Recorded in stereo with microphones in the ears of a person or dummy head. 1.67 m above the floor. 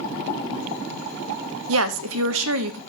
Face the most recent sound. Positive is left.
turn(degrees=-75)  # may be behind; listen again after turning